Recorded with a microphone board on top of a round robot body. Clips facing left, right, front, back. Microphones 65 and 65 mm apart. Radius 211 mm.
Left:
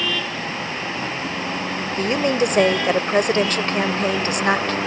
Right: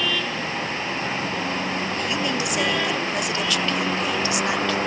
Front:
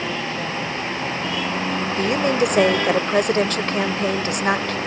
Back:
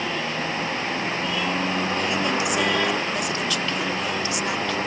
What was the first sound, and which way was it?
A woman speaking, 45° left.